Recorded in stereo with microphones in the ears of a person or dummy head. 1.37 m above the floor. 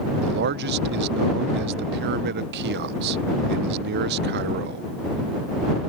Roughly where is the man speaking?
Right.